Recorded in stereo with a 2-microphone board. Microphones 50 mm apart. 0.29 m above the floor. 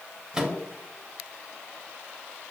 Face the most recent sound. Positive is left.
turn(degrees=-15)  # may be behind; listen again after turning